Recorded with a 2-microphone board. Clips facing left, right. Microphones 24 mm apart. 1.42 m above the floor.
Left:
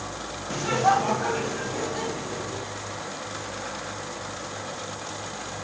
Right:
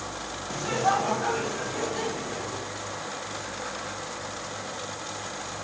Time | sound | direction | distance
0.5 | laughter | 25° left (ahead or behind) | 0.9 m